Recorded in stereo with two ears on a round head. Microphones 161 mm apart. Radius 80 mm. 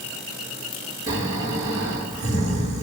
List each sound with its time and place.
1.1 s snoring: 25° right (ahead or behind), 3 m